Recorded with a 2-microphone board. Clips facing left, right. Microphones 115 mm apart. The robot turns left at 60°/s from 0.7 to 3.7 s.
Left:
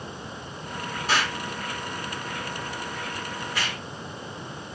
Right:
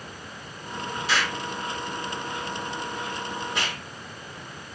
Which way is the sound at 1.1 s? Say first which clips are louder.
Left 1 dB; 45° left (ahead or behind).